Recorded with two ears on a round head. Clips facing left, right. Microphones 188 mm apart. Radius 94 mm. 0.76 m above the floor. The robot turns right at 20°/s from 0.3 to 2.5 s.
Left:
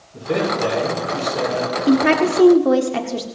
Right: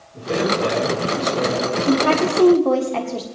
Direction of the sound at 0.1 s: 25° left (ahead or behind).